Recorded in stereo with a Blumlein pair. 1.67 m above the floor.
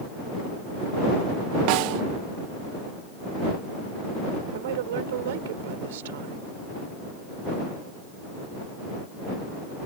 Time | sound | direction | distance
1.7 | a snare drum | 45° right | ?
4.5 | a woman speaking | 55° right | ?